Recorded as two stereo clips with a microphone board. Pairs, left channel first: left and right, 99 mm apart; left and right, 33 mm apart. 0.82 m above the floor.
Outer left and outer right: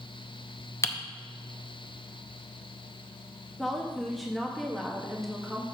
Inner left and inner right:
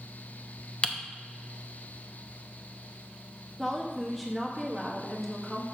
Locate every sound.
0.8 s typing on a keyboard: 30° left (ahead or behind), 0.7 m
3.6 s a woman speaking: centre (ahead or behind), 1.0 m